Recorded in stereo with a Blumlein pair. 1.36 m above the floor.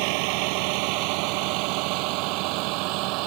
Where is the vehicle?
45° right; by 3.3 s 40° right.